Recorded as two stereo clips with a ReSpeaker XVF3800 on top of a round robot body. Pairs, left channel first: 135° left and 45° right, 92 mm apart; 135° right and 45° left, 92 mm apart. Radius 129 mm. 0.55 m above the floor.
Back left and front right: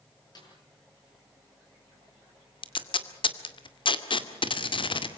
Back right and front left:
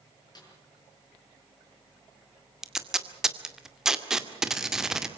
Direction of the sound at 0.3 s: Straight behind.